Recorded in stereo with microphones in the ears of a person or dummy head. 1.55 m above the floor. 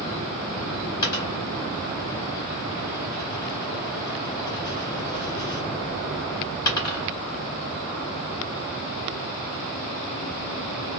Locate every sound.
1.0 s a dropped coin: 25° left (ahead or behind), 1.5 m